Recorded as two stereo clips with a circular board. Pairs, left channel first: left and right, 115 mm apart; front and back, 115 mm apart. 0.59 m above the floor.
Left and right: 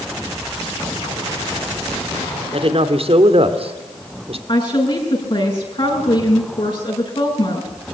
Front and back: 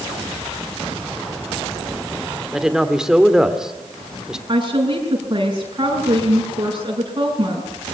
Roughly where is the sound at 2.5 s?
Right.